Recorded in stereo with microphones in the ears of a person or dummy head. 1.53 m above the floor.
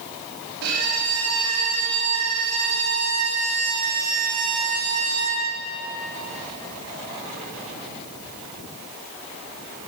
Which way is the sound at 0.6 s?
70° right (ahead or behind).